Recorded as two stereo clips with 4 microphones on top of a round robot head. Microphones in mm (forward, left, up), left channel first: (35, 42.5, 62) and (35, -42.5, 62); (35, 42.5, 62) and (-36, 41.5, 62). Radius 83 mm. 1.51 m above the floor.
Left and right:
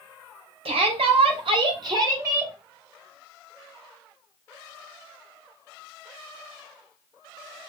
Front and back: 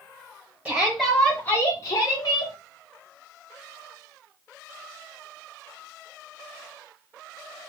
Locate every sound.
0.7 s a shout: 105° right, 1.3 m; by 2.5 s 30° right, 1.6 m